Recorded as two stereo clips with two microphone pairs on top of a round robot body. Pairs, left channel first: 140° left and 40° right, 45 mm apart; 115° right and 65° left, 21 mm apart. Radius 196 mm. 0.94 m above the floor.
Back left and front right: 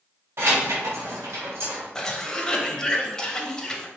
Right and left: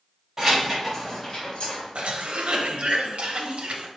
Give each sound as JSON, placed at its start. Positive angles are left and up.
{"t": 0.4, "sound": "keys jangling", "azimuth_deg": -10, "distance_m": 1.5}
{"t": 1.9, "sound": "a cough", "azimuth_deg": 65, "distance_m": 1.1}